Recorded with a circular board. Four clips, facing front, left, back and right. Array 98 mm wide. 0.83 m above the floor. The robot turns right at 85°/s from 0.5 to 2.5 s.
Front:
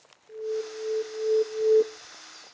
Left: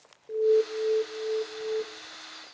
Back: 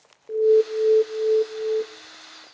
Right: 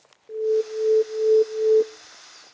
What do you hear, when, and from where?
0.3 s an alarm: straight behind, 0.5 m; by 1.8 s 65° right, 0.5 m